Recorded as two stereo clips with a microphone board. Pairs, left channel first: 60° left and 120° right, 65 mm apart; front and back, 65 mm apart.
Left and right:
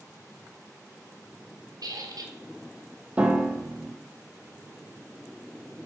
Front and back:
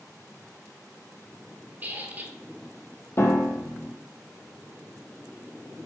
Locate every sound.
1.8 s a squeak: 115° right, 1.1 m
3.2 s a piano: 50° right, 1.0 m